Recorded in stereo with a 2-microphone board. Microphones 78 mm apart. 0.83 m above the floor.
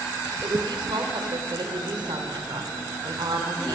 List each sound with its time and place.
0.4 s a woman speaking: 75° right (ahead or behind), 3 m